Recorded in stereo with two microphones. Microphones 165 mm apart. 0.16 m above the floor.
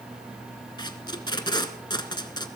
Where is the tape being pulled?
30° left (ahead or behind), 1.0 m.